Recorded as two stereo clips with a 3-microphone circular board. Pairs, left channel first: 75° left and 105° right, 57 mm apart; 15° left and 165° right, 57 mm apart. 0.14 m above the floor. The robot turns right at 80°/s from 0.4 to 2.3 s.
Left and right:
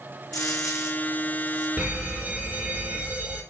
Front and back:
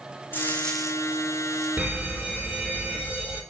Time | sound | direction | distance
0.3 | a dropped coin | 75° left | 1.7 m
1.8 | an alarm | 175° right | 2 m